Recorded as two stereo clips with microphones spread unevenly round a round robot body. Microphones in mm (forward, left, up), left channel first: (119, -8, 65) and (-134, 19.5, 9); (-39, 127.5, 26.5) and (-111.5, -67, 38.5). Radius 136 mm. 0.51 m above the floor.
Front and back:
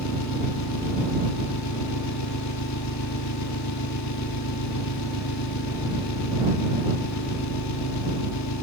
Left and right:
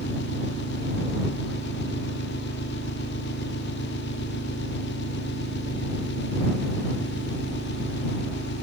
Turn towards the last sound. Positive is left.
turn(degrees=20)